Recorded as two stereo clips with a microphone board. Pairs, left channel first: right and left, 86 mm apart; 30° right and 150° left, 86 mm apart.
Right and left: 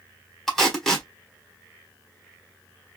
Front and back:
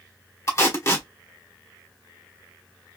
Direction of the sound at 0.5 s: 10° right.